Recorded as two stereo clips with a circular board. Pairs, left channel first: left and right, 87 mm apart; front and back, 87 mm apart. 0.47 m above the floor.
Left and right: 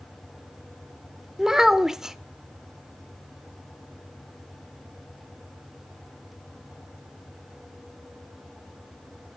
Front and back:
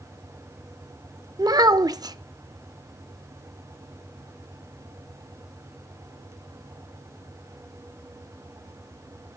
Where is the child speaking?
170° right, 0.6 m.